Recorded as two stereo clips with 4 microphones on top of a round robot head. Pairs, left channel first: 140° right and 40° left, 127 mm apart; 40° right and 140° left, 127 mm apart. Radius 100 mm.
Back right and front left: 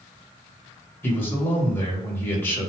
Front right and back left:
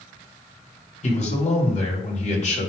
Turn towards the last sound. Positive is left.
turn(degrees=-65)